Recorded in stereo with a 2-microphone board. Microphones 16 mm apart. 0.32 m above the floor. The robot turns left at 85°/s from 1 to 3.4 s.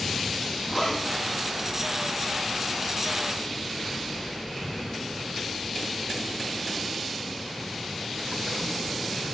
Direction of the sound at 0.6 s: 40° left (ahead or behind).